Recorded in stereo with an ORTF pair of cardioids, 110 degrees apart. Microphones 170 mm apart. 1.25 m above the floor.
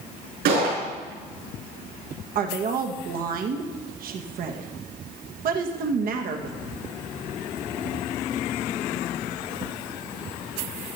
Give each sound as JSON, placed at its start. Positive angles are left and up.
{"t": 0.5, "sound": "a gunshot", "azimuth_deg": -70, "distance_m": 5.5}
{"t": 2.4, "sound": "a woman speaking", "azimuth_deg": -60, "distance_m": 1.2}